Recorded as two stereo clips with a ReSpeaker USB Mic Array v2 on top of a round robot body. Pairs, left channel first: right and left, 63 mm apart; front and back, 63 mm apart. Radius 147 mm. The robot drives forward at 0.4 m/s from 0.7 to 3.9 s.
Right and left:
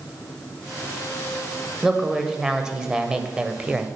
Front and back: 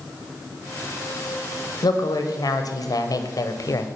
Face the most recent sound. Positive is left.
turn(degrees=20)